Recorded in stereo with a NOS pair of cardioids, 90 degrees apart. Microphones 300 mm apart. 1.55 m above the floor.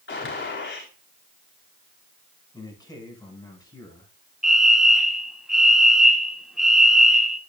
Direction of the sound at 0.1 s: 40° left.